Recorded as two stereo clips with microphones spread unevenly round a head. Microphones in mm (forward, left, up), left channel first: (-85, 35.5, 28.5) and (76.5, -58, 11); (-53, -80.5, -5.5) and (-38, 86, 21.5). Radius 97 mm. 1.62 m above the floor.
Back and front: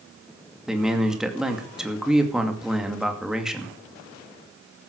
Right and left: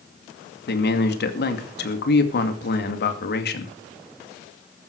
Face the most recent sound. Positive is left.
turn(degrees=-120)